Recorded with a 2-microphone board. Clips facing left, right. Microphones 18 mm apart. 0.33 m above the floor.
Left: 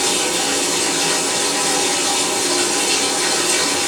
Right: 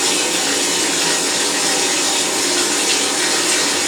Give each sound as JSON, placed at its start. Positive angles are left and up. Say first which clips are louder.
{"t": 0.0, "sound": "running water", "louder": "right 1 dB", "side_deg": -80, "distance_m": 1.4}